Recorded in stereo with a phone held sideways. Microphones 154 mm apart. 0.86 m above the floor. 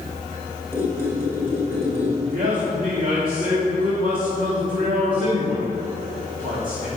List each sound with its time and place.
0.7 s a squeak: 10° right (ahead or behind), 2.5 m
2.3 s a man speaking: 60° right (ahead or behind), 2 m